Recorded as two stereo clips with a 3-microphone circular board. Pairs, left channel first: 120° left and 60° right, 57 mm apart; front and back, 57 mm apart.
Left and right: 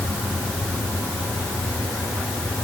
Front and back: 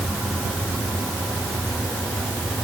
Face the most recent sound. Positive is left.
No sound to turn to.